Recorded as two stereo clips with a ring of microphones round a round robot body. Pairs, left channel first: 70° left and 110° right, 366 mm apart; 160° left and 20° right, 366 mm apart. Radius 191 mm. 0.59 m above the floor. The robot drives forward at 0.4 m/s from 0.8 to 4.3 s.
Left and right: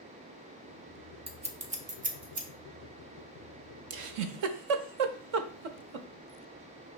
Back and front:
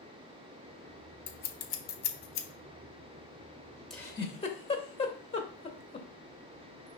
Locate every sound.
1.3 s scissors: 165° right, 0.7 m; by 2.5 s 175° right, 1.0 m
3.9 s a giggle: 115° right, 0.5 m; by 6.1 s 130° right, 0.6 m